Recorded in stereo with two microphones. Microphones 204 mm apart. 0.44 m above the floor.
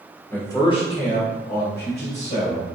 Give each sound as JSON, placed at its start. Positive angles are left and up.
{"t": 0.3, "sound": "a man speaking", "side_deg": 5, "distance_m": 0.8}